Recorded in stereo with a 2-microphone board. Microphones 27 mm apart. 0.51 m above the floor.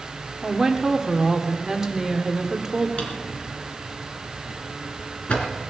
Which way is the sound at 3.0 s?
45° left (ahead or behind).